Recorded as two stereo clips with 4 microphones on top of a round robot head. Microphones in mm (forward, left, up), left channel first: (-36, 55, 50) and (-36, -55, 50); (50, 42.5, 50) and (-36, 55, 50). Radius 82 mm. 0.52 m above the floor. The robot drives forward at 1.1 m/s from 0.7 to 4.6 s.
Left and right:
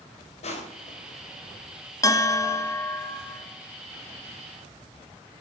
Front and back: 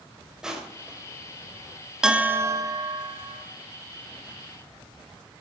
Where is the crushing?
90° left, 3 m; by 1.2 s 100° left, 3 m.